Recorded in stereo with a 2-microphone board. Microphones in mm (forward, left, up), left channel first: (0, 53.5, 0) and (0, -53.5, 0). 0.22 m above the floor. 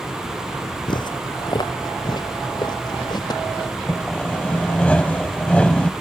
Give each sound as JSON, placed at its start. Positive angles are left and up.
{"t": 0.9, "sound": "footsteps", "side_deg": 50}
{"t": 3.9, "sound": "sawing", "side_deg": 10}